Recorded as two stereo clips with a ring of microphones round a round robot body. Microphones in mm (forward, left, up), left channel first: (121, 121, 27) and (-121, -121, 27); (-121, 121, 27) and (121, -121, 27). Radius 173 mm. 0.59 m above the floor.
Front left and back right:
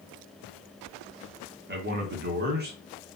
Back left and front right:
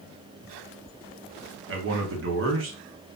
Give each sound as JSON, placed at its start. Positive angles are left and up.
{"t": 1.7, "sound": "a man speaking", "azimuth_deg": -85, "distance_m": 1.0}